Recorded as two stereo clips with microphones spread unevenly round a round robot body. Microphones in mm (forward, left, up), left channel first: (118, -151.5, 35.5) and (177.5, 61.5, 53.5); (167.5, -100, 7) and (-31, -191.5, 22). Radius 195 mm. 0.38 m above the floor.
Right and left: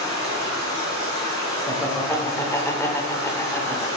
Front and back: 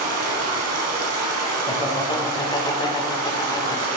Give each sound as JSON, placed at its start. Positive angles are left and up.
{"t": 0.0, "sound": "running water", "azimuth_deg": 170, "distance_m": 0.7}
{"t": 1.7, "sound": "laughter", "azimuth_deg": -35, "distance_m": 1.5}